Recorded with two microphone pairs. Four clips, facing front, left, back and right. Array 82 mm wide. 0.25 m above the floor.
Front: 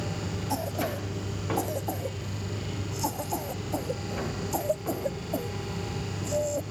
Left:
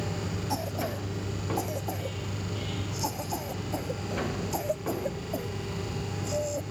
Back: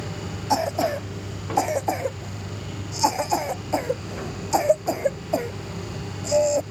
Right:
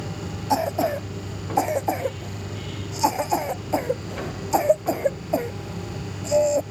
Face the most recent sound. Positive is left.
turn(degrees=-140)